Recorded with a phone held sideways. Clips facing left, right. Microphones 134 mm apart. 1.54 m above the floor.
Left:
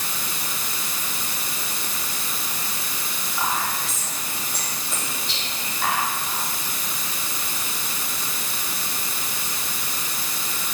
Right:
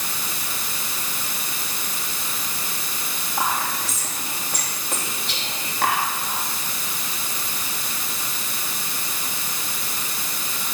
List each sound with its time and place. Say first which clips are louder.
3.4 s whispering: right 1 dB; 85° right, 3 m